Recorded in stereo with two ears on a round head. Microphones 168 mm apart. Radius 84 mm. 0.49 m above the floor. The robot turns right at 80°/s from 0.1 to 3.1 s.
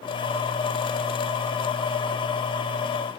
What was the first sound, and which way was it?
Only background noise.